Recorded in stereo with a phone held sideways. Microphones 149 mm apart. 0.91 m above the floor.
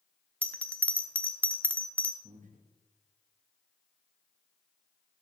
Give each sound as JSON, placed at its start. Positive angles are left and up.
{"t": 0.4, "sound": "a bell", "side_deg": 10, "distance_m": 0.9}
{"t": 2.2, "sound": "breathing", "side_deg": -55, "distance_m": 1.2}